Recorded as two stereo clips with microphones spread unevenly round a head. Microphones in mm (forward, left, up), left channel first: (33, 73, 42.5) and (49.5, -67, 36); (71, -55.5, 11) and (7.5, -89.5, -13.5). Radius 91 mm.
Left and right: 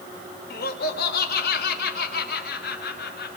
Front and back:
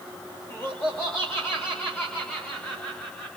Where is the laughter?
105° left, 3 m; by 3.4 s 110° left, 4.5 m.